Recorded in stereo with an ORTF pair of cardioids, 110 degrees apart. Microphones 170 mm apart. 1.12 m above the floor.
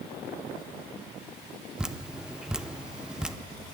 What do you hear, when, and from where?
1.8 s dripping: 5° right, 0.5 m